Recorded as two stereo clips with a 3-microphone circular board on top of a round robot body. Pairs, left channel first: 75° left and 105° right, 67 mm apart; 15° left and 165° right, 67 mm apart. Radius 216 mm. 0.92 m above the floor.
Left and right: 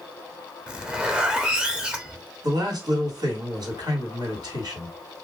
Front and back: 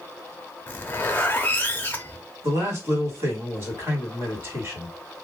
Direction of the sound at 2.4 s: 115° right.